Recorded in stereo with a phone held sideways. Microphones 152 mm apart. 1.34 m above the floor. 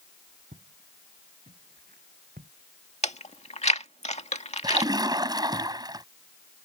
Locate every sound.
0.5 s footsteps: 70° right (ahead or behind)
3.0 s chewing: 45° left (ahead or behind)
4.6 s a splash: 25° right (ahead or behind)